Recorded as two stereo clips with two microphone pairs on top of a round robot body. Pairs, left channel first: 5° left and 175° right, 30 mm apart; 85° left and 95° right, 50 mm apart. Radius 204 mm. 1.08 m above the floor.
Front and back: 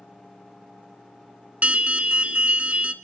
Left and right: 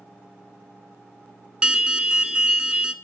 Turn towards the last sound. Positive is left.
turn(degrees=-155)